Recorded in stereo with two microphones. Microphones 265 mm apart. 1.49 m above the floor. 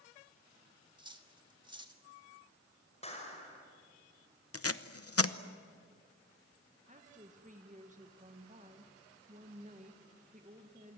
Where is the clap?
25° left (ahead or behind), 5.5 m.